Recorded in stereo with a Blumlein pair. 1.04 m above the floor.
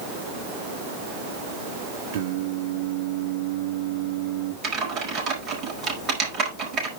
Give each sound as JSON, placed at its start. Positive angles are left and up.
{"t": 2.1, "sound": "singing", "azimuth_deg": -55, "distance_m": 1.8}
{"t": 4.6, "sound": "typing on a keyboard", "azimuth_deg": -30, "distance_m": 5.0}